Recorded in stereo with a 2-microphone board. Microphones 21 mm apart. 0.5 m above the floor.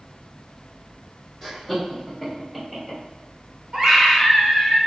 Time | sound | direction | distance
1.4 | laughter | 5° right (ahead or behind) | 1.4 m
3.7 | a scream | 35° right (ahead or behind) | 1.8 m